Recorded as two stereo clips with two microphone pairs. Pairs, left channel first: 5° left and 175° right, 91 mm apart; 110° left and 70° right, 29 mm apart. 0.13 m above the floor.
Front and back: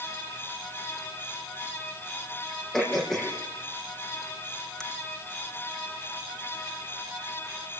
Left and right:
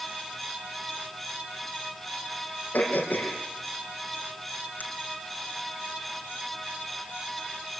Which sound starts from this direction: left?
Throat clearing, at 2.7 s.